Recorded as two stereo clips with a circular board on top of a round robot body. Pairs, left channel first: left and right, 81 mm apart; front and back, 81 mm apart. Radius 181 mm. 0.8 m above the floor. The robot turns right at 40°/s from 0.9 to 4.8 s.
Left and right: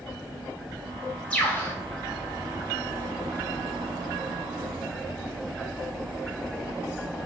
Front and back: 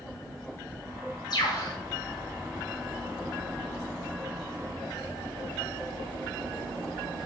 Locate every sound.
1.3 s a bird: 20° left, 2 m; by 1.8 s 35° left, 2 m